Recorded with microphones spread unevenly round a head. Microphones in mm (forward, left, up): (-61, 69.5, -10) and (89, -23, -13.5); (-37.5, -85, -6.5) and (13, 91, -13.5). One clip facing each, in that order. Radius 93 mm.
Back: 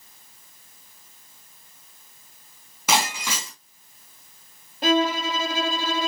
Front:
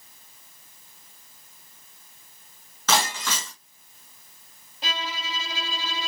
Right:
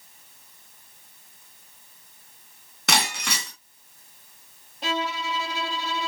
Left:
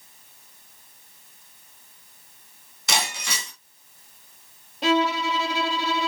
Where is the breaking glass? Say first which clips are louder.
Back 1 dB, right 2 dB; 135° right, 3 m.